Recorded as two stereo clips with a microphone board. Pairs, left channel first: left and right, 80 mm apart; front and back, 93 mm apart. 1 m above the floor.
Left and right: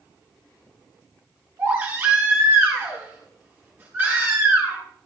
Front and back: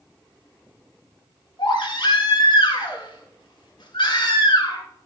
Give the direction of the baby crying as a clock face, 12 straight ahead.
1 o'clock.